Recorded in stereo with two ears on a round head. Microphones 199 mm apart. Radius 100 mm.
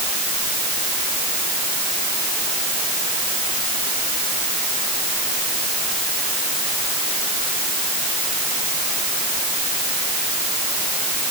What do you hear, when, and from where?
Only background noise.